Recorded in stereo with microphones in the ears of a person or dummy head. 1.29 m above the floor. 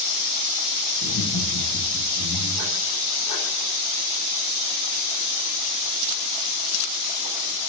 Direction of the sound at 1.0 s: 80° left.